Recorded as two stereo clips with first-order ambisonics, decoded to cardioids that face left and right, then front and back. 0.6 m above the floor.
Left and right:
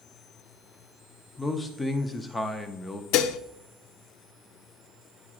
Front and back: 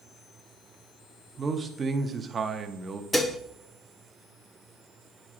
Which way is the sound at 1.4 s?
150° left.